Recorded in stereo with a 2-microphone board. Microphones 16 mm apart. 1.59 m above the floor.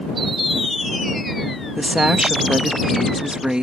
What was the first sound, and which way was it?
A woman speaking, 80° right.